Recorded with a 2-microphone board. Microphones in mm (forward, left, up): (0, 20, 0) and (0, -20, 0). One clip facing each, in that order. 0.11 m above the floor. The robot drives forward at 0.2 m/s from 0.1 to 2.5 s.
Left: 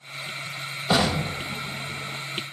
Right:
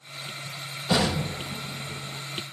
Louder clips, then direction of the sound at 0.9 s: Left 2 dB; 55° left (ahead or behind).